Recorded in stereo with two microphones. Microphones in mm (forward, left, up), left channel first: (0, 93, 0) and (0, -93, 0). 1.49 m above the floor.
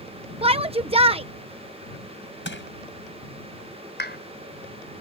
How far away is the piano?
I don't hear a piano.